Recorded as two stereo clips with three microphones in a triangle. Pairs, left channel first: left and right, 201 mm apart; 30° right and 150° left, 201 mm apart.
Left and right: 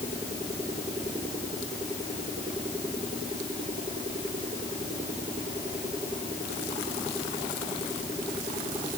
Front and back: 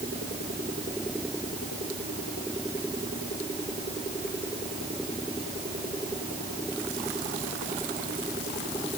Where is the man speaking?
No man speaking in this recording.